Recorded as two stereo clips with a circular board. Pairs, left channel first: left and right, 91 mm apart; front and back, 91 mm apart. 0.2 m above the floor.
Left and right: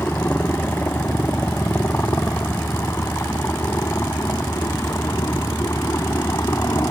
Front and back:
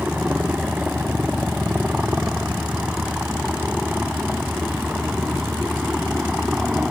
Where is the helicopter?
120° left; by 6.9 s 105° left.